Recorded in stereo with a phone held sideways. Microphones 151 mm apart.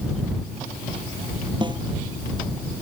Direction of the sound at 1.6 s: 30° right (ahead or behind).